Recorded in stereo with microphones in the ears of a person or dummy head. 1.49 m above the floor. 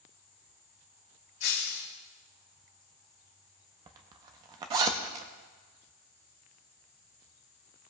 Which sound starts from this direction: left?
Breaking glass, at 1.4 s.